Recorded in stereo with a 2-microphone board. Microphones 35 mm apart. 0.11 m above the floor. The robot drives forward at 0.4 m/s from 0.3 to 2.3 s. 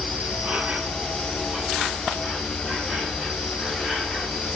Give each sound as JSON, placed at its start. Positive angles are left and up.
{"t": 0.0, "sound": "an insect", "side_deg": -40, "distance_m": 0.7}